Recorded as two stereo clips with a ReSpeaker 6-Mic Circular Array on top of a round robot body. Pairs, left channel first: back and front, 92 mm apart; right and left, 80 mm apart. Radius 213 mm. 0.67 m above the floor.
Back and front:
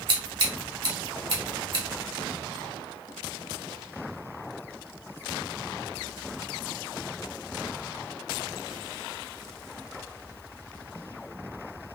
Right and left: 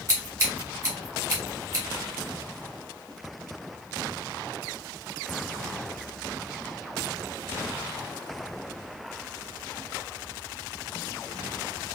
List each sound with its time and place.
0.1 s scissors: 35° left, 1.1 m